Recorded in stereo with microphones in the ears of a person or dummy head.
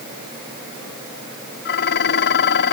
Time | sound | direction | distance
1.6 | dishes clattering | 60° left (ahead or behind) | ?